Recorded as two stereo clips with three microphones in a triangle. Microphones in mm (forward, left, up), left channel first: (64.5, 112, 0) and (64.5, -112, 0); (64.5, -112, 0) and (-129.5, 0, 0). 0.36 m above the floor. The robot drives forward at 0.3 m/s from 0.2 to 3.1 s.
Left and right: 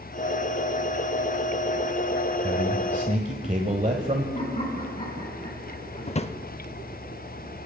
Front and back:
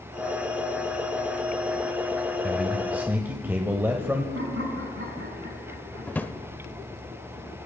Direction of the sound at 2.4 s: 120° right.